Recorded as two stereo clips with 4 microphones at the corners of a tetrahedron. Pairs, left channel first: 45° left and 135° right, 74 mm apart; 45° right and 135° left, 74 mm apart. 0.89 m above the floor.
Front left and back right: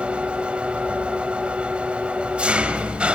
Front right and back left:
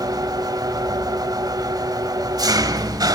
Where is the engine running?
150° left, 1.4 m.